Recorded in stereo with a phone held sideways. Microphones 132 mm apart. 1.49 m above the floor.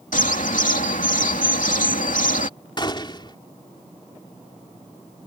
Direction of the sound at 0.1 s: 85° left.